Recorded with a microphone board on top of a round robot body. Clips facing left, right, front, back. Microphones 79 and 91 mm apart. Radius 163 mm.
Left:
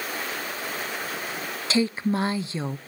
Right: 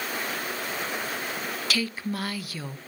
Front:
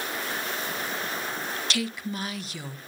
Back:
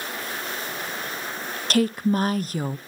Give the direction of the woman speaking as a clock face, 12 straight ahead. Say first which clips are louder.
Left 8 dB, back 14 dB; 7 o'clock.